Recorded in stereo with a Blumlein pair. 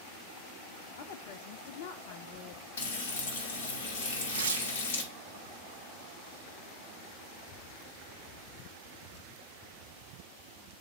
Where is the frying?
55° left, 1.8 m.